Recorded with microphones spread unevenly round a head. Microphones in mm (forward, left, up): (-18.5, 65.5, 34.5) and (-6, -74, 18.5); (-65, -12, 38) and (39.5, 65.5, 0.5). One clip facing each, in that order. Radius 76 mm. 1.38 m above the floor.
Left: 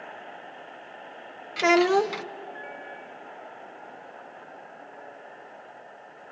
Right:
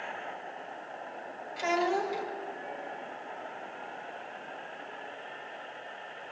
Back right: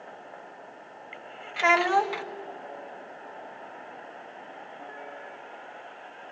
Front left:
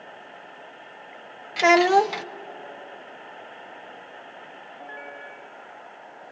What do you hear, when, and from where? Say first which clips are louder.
1.6 s a child speaking: left 9 dB, front left 6 dB; 90° left, 0.7 m